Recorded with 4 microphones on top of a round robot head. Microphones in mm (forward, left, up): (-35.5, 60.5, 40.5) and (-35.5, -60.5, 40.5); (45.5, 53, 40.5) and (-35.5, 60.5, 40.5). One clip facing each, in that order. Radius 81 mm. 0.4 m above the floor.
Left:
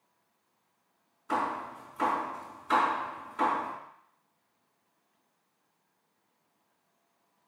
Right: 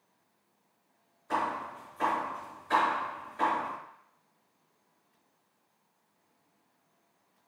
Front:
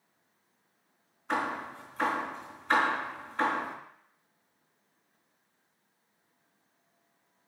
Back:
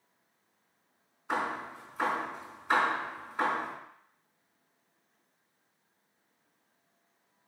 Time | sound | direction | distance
1.3 | hammering | 95° left | 3.5 m